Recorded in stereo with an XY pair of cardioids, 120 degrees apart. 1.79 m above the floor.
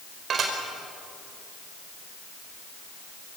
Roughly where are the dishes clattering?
Ahead right.